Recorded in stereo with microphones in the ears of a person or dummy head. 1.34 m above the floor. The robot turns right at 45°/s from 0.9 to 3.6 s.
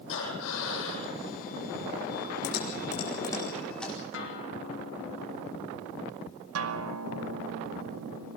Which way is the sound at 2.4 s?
50° left (ahead or behind).